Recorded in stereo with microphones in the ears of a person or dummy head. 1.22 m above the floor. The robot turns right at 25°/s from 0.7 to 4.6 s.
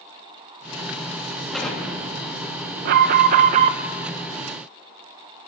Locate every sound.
1.5 s an explosion: 5° left, 2.5 m; by 3.9 s 65° left, 2.5 m
2.9 s an alarm: 55° right (ahead or behind), 0.7 m; by 3.8 s 30° right (ahead or behind), 0.7 m